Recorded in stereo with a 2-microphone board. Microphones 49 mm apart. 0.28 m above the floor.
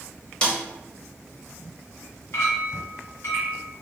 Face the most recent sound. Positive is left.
turn(degrees=55)  # may be behind; listen again after turning